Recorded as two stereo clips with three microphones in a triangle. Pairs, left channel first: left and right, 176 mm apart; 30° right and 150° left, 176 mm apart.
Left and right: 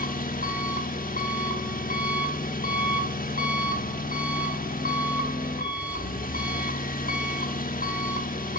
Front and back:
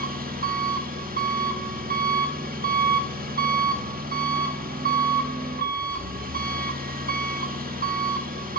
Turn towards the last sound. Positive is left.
turn(degrees=120)